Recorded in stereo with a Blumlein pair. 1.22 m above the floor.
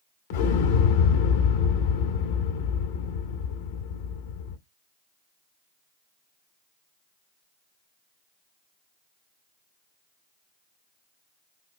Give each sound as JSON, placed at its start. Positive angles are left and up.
{"t": 0.3, "sound": "an explosion", "azimuth_deg": 50, "distance_m": 1.5}